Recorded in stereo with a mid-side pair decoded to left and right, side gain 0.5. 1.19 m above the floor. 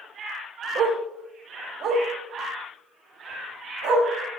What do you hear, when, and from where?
0.8 s a dog barking: 70° right, 1.8 m; by 4.1 s 75° right, 4 m